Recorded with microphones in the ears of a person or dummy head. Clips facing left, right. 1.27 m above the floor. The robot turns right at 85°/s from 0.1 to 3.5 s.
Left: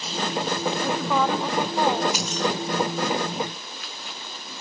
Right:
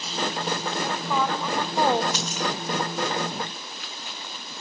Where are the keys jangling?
10° left (ahead or behind), 0.7 m; by 2.5 s 15° right (ahead or behind), 0.7 m.